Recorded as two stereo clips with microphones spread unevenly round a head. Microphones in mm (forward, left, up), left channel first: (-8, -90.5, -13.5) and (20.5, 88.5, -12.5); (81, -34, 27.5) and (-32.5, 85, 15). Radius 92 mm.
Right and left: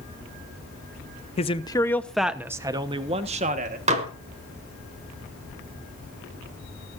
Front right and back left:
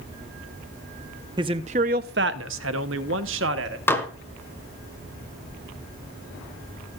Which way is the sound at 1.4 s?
155° right.